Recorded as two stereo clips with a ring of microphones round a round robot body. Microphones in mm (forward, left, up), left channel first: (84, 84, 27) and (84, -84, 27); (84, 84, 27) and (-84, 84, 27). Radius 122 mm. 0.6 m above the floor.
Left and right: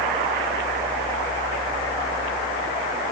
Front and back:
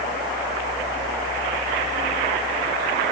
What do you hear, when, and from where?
Only background noise.